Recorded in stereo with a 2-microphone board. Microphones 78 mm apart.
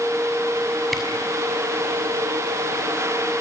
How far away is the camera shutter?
About 6 m.